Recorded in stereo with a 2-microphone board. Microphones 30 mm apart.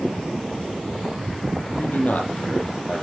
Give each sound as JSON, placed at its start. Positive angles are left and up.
{"t": 1.7, "sound": "a man speaking", "side_deg": 70, "distance_m": 4.0}